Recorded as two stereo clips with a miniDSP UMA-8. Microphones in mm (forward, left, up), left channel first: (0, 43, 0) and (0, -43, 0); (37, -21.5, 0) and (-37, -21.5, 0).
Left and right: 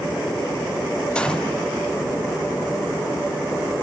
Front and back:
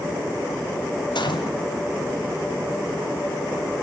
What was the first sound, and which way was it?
A gunshot, 10° left.